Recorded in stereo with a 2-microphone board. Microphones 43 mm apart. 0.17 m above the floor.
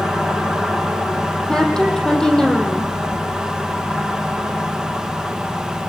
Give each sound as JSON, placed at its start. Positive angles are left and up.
{"t": 1.5, "sound": "a woman speaking", "side_deg": 15, "distance_m": 6.0}